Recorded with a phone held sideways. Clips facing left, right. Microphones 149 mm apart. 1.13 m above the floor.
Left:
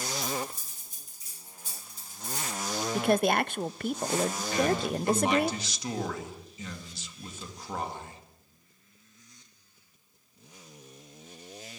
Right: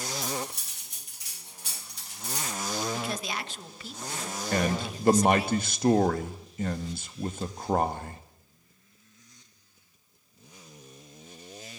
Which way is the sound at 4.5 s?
55° right (ahead or behind).